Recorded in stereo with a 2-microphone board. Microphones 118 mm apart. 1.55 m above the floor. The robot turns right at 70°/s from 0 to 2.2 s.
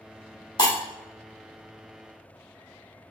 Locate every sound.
0.6 s breaking glass: 35° left (ahead or behind), 1.4 m